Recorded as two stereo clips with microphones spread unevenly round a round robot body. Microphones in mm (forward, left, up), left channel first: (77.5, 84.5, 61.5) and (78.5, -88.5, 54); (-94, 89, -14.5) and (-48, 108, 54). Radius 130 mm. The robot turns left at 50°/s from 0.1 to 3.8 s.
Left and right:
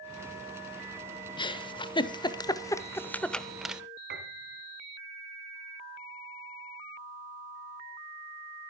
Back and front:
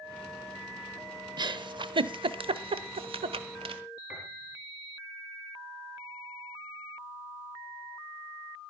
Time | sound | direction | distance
1.4 | a giggle | 105° left | 0.9 m
4.1 | a piano | 80° right | 2.5 m